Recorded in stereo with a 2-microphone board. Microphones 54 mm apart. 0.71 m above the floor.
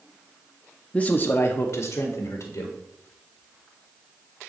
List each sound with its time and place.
0.9 s a man speaking: 20° left (ahead or behind), 0.6 m; by 2.8 s 70° left (ahead or behind), 2 m